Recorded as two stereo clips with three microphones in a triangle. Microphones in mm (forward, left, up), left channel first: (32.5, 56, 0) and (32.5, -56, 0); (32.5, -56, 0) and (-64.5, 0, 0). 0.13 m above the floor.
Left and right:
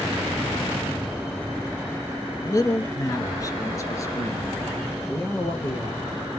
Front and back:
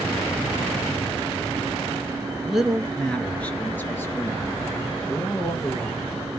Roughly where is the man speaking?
Left.